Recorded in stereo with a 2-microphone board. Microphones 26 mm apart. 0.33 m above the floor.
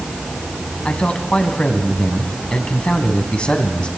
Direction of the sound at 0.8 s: 40° left (ahead or behind).